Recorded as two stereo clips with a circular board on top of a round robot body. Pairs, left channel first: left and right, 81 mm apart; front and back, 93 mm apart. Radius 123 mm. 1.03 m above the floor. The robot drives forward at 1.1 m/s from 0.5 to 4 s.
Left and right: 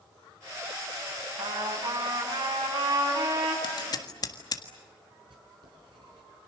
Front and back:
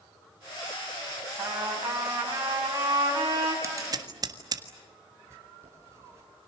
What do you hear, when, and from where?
1.4 s a trumpet: 105° right, 7 m; by 3.5 s 125° right, 8 m
3.6 s scissors: 120° left, 1.5 m; by 4.6 s 135° left, 1.7 m
5.3 s writing: 120° right, 5.5 m